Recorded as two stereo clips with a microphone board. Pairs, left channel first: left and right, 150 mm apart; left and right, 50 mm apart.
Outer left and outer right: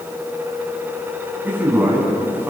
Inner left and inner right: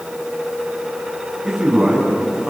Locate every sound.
1.4 s a man speaking: 15° right (ahead or behind), 8 m